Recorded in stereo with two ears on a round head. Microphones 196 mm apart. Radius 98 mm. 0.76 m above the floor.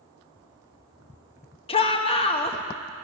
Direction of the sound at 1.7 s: 25° left (ahead or behind).